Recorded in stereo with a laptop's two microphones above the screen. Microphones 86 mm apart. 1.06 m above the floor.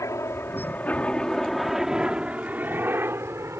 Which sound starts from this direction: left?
A helicopter, at 0.0 s.